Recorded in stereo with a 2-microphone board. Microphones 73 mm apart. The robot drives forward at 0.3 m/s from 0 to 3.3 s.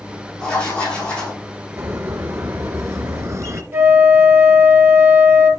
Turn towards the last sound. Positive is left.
turn(degrees=-35)  # may be behind; listen again after turning